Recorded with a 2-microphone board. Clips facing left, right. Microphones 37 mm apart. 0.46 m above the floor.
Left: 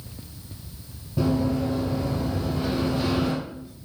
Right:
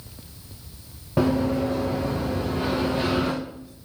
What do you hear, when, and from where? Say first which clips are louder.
1.2 s running footsteps: right 2 dB; 60° right (ahead or behind), 2.5 m; by 3.3 s 35° right (ahead or behind), 3 m